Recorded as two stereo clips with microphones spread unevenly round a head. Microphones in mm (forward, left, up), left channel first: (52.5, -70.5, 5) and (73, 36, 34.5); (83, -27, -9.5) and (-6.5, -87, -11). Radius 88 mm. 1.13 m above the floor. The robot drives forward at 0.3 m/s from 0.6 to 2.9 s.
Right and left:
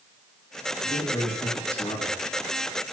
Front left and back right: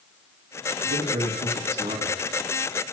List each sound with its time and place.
0.8 s a man speaking: 165° right, 2.5 m; by 2.2 s 170° right, 3 m